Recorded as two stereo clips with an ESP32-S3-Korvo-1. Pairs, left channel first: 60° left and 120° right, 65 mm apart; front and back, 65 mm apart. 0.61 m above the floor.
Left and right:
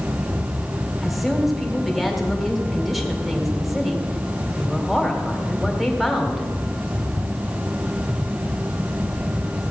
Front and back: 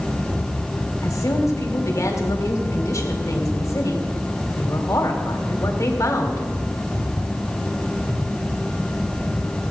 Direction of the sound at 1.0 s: 30° right.